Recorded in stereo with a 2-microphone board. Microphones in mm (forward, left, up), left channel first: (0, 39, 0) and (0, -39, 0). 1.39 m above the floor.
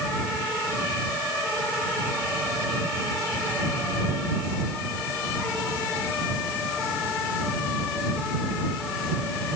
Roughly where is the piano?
No piano in this recording.